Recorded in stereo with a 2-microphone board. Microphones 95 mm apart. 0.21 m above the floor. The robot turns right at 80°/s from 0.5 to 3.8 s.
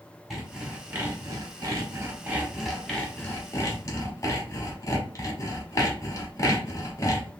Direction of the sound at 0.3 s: Centre (ahead or behind).